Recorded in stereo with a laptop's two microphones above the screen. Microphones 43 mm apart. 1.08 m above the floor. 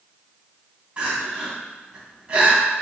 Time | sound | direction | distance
1.0 | crying | 30° right (ahead or behind) | 1.3 m